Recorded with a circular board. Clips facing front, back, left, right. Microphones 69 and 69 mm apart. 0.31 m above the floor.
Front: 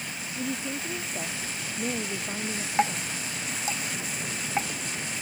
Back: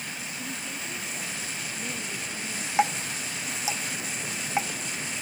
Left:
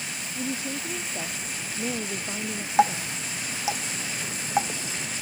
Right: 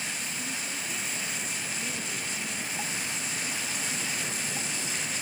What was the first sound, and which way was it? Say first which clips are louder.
A woman speaking: front 9 dB, left 5 dB; 55° left.